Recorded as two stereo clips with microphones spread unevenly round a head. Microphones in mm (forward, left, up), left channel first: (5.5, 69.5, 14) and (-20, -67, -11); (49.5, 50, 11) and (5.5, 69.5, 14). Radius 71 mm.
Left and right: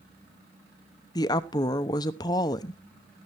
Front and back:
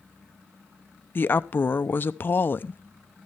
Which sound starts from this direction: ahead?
A woman speaking, at 1.1 s.